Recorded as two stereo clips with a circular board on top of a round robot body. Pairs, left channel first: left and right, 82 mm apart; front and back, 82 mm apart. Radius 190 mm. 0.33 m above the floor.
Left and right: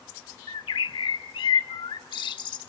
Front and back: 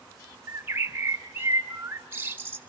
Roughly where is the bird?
Behind left.